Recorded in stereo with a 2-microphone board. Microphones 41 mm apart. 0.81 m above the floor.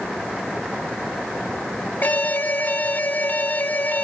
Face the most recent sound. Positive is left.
turn(degrees=45)  # may be behind; listen again after turning